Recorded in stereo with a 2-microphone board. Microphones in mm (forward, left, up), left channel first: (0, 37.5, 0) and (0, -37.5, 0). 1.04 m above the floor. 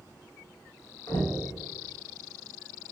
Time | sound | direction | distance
1.1 | knocking | 75° left (ahead or behind) | 0.9 m